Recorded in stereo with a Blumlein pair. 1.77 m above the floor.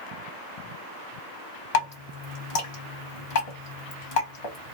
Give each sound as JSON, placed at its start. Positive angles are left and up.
{"t": 1.7, "sound": "dripping", "azimuth_deg": 50, "distance_m": 1.9}